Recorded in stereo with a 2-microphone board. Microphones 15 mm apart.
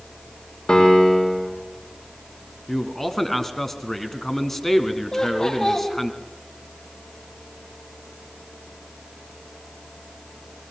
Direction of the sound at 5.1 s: 35° left (ahead or behind).